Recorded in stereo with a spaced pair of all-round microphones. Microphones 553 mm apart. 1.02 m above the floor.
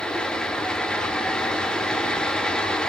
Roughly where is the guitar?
No guitar in this recording.